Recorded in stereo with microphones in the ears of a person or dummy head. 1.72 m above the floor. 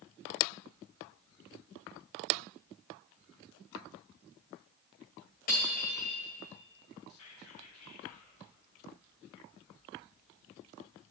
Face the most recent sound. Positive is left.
turn(degrees=85)